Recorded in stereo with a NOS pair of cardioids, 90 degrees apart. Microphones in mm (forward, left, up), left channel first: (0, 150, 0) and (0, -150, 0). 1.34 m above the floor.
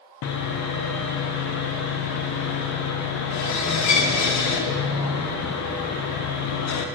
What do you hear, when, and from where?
0.2 s sawing: 65° left, 0.7 m